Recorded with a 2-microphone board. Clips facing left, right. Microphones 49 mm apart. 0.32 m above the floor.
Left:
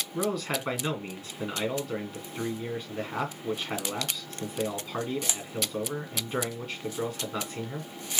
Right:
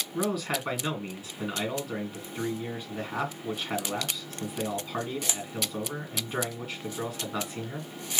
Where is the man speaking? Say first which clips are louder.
Even; 10° right (ahead or behind), 2.5 m.